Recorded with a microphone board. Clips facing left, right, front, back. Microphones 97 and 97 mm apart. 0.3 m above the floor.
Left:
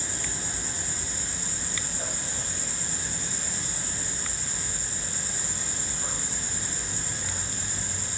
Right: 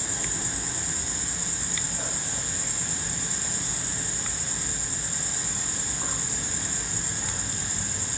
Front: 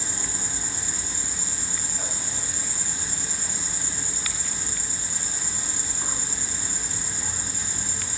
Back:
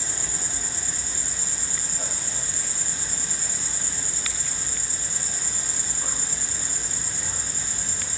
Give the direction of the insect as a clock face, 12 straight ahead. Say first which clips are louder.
Right 2 dB, front 1 dB; 2 o'clock.